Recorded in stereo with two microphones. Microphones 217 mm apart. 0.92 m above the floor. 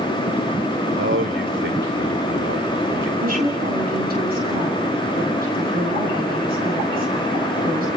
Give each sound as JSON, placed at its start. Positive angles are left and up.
{"t": 0.9, "sound": "a man speaking", "side_deg": -70, "distance_m": 2.5}
{"t": 3.2, "sound": "a woman speaking", "side_deg": -45, "distance_m": 10.0}